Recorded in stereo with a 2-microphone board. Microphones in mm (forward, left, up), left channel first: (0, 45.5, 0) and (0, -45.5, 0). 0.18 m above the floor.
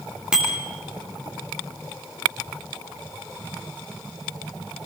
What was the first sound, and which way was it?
A bicycle bell, 10° right (ahead or behind).